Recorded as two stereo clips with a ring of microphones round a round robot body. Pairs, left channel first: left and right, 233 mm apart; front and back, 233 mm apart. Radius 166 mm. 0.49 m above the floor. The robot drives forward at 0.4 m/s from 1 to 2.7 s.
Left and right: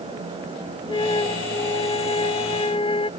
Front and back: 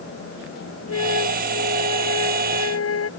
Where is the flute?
20° left.